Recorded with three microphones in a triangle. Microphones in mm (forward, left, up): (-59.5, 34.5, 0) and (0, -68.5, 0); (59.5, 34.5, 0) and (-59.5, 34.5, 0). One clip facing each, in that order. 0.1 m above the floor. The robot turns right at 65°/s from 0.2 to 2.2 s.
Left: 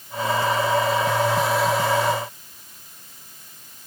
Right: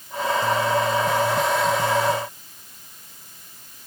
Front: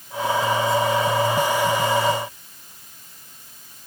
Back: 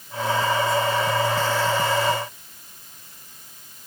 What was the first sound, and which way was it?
Only background noise.